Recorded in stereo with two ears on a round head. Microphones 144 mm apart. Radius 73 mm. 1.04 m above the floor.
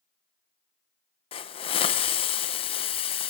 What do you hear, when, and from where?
1.3 s a hiss: 35° left (ahead or behind), 0.7 m